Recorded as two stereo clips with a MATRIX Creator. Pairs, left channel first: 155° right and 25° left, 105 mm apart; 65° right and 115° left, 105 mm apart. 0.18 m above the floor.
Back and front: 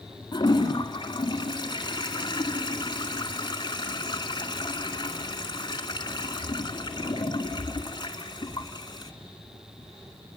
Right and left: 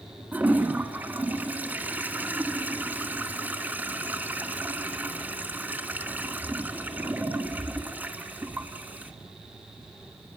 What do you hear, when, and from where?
0.3 s a toilet flushing: straight behind, 1.7 m